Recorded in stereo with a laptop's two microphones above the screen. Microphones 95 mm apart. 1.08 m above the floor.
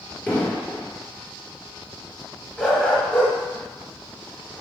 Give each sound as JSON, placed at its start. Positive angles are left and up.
{"t": 0.3, "sound": "an explosion", "side_deg": 15, "distance_m": 3.5}
{"t": 2.6, "sound": "a dog barking", "side_deg": 10, "distance_m": 4.0}